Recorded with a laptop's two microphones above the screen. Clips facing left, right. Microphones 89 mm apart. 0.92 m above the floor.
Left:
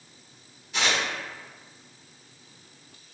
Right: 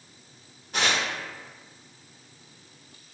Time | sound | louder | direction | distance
0.7 | tearing paper | right 1 dB | 45° right (ahead or behind) | 0.8 m